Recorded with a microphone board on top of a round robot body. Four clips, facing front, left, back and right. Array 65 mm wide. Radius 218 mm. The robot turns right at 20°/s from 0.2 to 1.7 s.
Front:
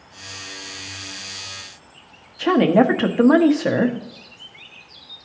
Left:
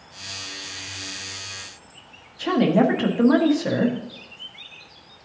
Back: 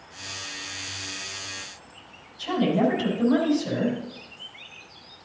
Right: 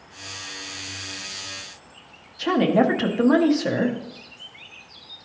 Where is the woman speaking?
5° right, 1.2 m.